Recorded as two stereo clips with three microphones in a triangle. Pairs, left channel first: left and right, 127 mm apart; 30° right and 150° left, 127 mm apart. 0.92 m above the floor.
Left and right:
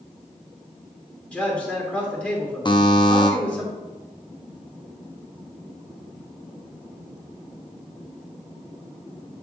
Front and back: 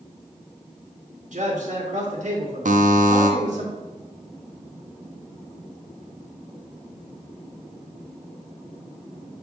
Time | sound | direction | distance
1.3 | a man speaking | 170° left | 2 m
2.6 | a buzzer | 140° left | 0.7 m